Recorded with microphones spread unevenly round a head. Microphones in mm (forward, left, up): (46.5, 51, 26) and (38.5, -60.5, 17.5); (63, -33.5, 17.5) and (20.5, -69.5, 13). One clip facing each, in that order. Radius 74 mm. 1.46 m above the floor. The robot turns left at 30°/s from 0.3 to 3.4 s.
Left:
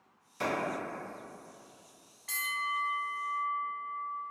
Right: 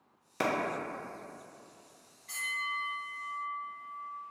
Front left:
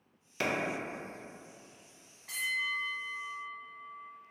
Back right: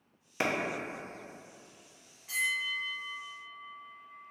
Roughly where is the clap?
Right.